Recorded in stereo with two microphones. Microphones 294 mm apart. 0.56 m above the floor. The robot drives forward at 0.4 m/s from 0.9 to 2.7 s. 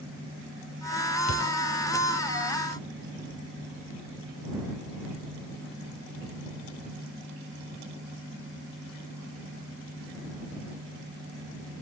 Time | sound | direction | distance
1.3 | a thud | 65° left (ahead or behind) | 2.5 m